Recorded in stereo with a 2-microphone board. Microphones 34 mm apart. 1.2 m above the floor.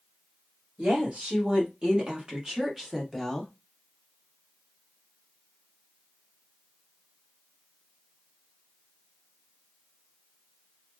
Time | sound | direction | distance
0.8 | a woman speaking | 35° right (ahead or behind) | 2.5 m